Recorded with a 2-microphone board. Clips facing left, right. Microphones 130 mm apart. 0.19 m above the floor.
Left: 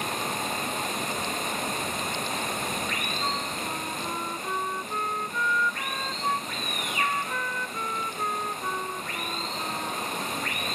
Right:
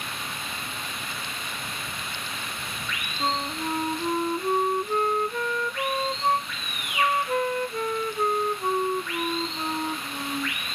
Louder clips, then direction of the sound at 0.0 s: Left 6 dB; 45° left (ahead or behind).